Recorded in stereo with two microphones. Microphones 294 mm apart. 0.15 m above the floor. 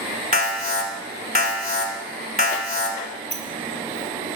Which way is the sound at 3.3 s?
35° left (ahead or behind).